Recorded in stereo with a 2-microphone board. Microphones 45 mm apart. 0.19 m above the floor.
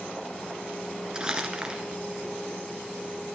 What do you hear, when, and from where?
1.1 s crumpling: 20° right (ahead or behind), 1.7 m